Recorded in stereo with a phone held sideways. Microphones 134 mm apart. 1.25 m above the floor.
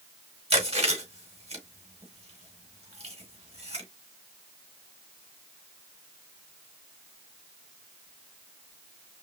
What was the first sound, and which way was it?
Chewing, 50° right (ahead or behind).